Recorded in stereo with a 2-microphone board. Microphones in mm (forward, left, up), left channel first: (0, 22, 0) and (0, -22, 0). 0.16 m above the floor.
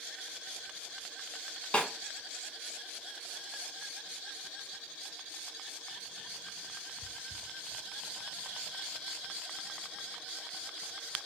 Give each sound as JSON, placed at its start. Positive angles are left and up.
{"t": 1.7, "sound": "a snare drum", "side_deg": 30, "distance_m": 0.7}